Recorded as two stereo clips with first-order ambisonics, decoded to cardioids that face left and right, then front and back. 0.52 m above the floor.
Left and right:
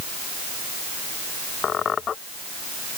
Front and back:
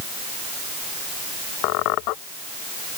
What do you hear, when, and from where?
1.6 s a squeak: 25° left